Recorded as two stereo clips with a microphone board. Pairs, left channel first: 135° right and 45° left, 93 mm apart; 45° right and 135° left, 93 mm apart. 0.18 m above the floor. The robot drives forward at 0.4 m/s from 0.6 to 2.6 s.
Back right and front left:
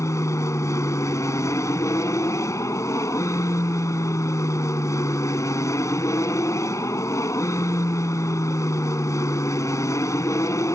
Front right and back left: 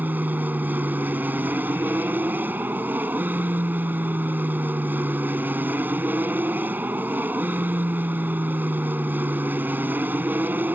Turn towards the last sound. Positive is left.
turn(degrees=-165)